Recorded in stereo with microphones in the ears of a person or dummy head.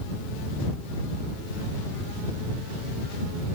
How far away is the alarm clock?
I don't hear an alarm clock.